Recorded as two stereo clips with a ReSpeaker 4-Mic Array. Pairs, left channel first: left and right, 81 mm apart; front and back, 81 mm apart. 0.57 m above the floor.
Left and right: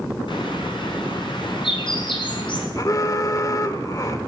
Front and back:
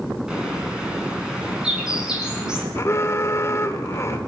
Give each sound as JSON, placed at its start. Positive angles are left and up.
{"t": 0.3, "sound": "a bird", "azimuth_deg": 100, "distance_m": 6.0}
{"t": 2.8, "sound": "an alarm", "azimuth_deg": 50, "distance_m": 1.5}